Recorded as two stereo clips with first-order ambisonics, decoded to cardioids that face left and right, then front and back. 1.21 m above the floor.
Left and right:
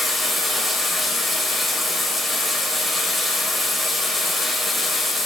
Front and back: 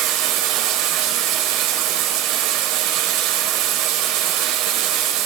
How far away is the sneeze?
I don't hear a sneeze.